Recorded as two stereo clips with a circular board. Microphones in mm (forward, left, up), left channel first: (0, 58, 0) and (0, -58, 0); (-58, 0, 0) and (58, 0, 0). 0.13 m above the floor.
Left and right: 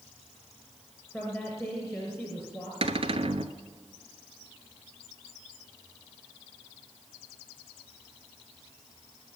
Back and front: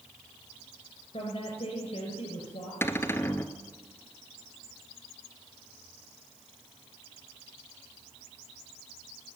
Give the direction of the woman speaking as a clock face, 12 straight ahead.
6 o'clock.